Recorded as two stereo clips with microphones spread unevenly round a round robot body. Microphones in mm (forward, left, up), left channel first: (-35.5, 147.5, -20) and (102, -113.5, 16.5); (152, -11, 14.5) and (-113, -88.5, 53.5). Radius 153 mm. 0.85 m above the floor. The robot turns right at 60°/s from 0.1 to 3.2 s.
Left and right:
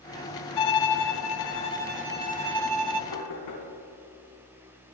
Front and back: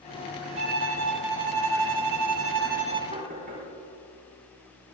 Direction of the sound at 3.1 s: 125° left.